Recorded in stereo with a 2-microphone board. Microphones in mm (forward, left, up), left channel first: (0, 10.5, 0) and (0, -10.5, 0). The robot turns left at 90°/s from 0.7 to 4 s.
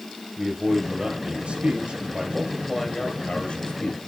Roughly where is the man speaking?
Ahead.